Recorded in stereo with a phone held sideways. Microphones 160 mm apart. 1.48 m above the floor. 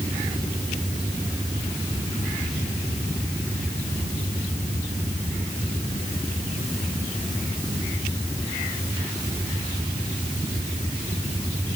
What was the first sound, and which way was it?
Only background noise.